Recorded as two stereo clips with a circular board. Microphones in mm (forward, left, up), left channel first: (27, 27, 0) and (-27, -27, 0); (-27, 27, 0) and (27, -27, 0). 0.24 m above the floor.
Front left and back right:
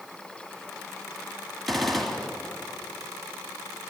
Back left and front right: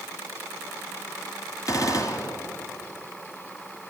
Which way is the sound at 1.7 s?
135° left.